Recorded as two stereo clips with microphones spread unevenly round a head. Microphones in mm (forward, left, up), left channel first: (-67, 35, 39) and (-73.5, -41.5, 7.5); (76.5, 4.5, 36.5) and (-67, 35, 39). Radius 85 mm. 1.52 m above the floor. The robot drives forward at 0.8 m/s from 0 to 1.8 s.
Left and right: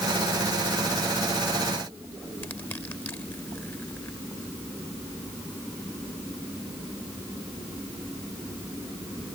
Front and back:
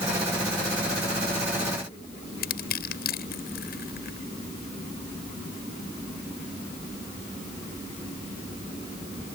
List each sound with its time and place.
2.4 s crushing: 10° left